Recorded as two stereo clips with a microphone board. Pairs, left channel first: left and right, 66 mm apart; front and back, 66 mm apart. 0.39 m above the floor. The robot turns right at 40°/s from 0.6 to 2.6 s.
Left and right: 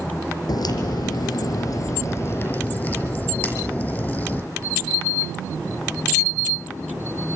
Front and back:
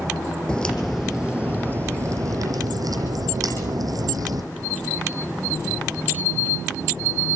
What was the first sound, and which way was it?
A crack, 75° left.